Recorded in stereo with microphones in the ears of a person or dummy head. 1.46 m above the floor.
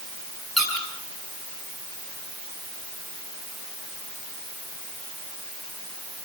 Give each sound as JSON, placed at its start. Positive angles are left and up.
{"t": 0.6, "sound": "a squeak", "side_deg": 5, "distance_m": 9.5}